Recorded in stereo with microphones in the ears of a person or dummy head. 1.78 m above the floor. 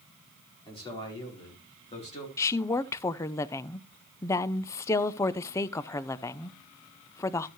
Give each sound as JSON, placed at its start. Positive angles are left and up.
{"t": 0.7, "sound": "a man speaking", "side_deg": 20, "distance_m": 4.0}
{"t": 2.4, "sound": "a woman speaking", "side_deg": 25, "distance_m": 0.5}